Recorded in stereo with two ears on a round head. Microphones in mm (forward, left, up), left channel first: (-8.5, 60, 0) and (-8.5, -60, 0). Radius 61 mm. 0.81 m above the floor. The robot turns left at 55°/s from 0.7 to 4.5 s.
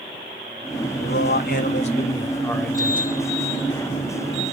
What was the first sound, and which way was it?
A man speaking, 95° left.